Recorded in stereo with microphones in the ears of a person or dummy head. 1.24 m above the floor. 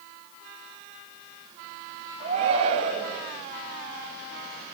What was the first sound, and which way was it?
A shout, 30° right (ahead or behind).